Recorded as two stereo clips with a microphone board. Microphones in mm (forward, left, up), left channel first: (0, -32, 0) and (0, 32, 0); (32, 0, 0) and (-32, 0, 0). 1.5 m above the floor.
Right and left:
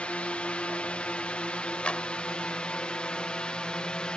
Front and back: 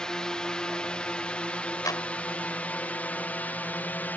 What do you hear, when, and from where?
0.0 s a drone: 60° right; by 4.2 s 30° right
1.9 s a clap: 20° right